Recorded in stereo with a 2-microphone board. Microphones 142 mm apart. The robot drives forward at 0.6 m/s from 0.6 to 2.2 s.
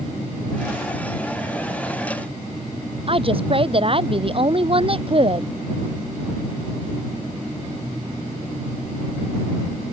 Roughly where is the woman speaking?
Right.